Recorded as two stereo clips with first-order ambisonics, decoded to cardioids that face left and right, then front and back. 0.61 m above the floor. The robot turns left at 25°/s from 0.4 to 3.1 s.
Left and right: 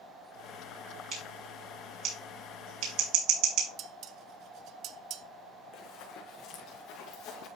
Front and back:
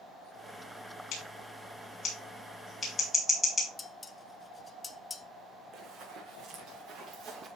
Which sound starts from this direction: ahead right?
Scissors, at 1.1 s.